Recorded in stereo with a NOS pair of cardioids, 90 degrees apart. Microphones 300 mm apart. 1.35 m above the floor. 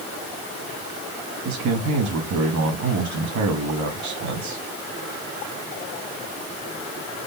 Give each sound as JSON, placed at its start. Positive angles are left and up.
{"t": 1.4, "sound": "a man speaking", "azimuth_deg": -70, "distance_m": 2.0}